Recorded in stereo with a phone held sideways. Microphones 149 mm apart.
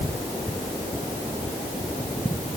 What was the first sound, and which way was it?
Only background noise.